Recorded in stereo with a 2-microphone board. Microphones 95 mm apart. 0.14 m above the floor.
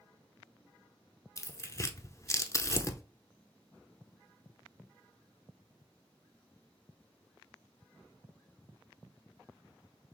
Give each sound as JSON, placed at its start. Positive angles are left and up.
{"t": 1.4, "sound": "tearing paper", "side_deg": 35, "distance_m": 0.6}